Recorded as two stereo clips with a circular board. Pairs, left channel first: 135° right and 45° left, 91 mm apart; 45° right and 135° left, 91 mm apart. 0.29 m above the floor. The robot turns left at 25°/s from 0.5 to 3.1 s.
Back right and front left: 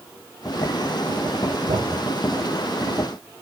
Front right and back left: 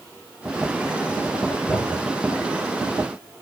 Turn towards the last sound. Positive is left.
turn(degrees=10)